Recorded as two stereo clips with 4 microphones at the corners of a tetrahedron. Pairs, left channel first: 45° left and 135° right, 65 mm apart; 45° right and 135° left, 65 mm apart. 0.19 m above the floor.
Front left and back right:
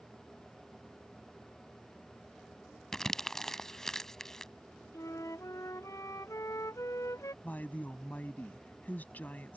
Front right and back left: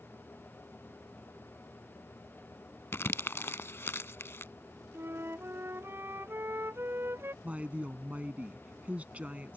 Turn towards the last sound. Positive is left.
turn(degrees=85)